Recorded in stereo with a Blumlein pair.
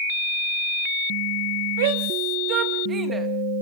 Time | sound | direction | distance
1.8 | a shout | 55° right | 2.5 m